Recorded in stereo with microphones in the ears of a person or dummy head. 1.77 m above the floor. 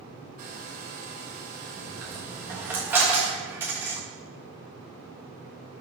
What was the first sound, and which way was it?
A hair dryer, 45° right (ahead or behind).